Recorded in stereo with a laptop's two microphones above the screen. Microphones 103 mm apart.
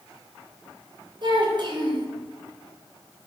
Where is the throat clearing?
I don't hear throat clearing.